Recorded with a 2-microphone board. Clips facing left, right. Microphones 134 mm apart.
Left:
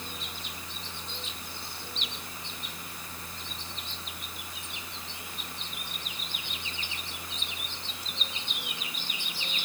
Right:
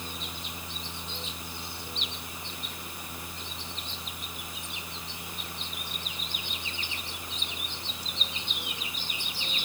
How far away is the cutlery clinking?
I don't hear cutlery clinking.